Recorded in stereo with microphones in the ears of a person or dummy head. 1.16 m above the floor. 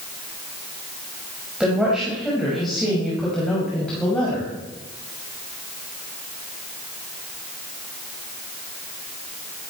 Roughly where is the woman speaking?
Centre.